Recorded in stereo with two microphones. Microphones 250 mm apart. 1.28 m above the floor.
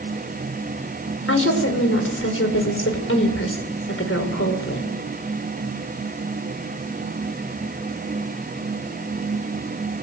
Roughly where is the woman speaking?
Left.